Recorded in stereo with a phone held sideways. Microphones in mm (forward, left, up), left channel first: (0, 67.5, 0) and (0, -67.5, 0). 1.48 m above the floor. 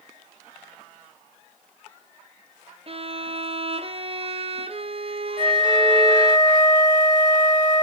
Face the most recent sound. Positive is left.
turn(degrees=30)  # may be behind; listen again after turning